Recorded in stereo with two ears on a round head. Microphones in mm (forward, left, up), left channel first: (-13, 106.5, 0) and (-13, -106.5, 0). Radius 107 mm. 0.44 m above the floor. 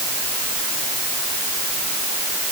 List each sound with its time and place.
Only background noise.